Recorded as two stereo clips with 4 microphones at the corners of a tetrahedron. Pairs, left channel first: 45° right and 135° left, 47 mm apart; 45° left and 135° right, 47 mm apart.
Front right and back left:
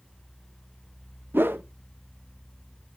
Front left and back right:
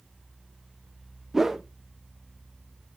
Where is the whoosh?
145° left, 0.8 m.